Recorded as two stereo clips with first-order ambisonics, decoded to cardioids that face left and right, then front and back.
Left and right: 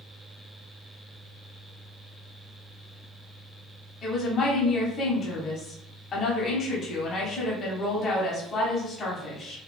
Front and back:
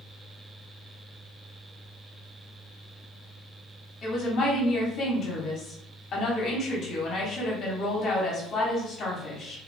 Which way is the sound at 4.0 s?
40° left.